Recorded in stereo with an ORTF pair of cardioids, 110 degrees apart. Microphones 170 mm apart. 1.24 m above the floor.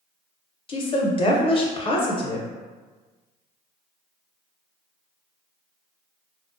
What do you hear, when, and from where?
0.7 s a woman speaking: 35° left, 0.6 m